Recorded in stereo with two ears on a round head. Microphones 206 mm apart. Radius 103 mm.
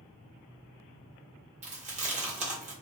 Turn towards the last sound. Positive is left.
turn(degrees=-30)  # may be behind; listen again after turning